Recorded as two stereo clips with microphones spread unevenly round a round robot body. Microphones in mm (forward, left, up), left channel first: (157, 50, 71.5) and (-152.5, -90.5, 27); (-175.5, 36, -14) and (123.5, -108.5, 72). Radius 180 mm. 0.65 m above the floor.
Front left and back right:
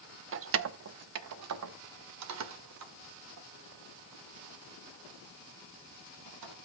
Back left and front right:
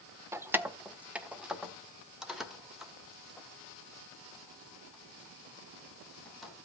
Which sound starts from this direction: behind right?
Keys jangling, at 0.3 s.